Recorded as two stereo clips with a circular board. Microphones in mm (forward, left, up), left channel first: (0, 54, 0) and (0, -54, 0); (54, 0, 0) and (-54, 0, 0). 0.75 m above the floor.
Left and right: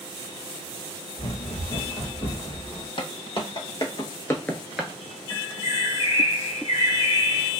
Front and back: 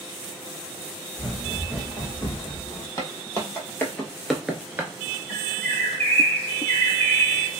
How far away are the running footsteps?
About 1.5 m.